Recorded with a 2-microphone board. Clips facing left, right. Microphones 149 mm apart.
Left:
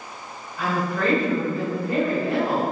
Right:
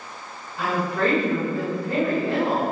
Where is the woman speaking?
30° right (ahead or behind), 1.3 m.